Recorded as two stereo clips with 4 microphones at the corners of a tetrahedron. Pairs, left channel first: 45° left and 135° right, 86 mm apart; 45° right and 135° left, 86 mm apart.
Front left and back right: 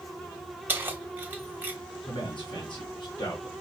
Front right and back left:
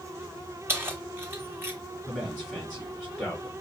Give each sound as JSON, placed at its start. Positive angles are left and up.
{"t": 0.7, "sound": "keys jangling", "azimuth_deg": 175, "distance_m": 1.0}
{"t": 2.0, "sound": "a man speaking", "azimuth_deg": 45, "distance_m": 3.5}